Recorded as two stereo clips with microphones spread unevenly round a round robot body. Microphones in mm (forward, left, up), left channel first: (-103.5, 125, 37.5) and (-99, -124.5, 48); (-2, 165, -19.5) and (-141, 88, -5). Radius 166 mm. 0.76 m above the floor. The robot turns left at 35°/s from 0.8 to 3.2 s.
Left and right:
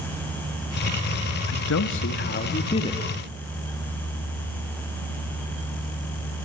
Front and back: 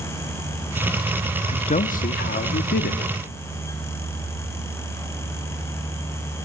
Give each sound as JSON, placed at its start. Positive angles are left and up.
{"t": 1.5, "sound": "a man speaking", "azimuth_deg": 70, "distance_m": 1.2}